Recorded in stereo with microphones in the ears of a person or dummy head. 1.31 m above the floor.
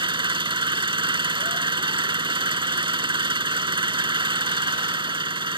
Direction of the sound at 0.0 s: 20° right (ahead or behind).